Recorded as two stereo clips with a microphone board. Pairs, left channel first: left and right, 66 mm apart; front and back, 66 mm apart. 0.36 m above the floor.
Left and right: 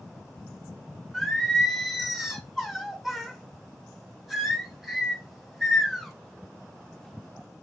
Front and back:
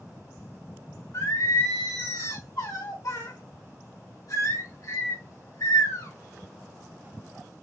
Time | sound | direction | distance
1.1 | singing | 5° right | 3 m